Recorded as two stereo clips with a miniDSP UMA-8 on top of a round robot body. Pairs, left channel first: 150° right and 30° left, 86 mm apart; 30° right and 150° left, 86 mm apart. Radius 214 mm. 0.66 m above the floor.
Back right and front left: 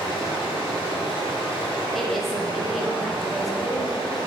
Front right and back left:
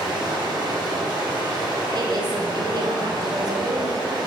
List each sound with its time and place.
0.0 s running water: 165° right, 0.7 m
1.9 s a woman speaking: 120° left, 0.7 m